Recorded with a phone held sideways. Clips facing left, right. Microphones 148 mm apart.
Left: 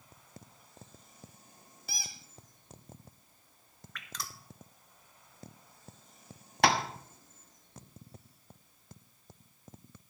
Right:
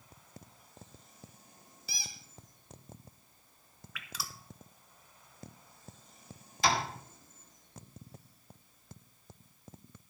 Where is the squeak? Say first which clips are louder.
Left 2 dB; 50° left (ahead or behind), 1.6 m.